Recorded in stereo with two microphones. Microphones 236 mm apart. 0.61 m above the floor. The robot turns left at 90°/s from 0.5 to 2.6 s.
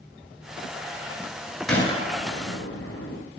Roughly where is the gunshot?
Centre.